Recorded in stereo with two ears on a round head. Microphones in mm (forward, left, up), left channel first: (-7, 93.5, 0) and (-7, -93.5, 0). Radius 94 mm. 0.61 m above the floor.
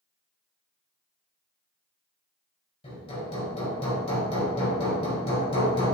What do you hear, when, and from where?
2.8 s hammering: 30° left (ahead or behind), 3 m